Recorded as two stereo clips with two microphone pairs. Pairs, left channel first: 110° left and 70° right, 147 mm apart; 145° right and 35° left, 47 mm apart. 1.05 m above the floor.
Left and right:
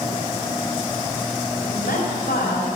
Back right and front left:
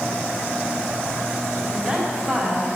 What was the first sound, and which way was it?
A woman speaking, 110° left.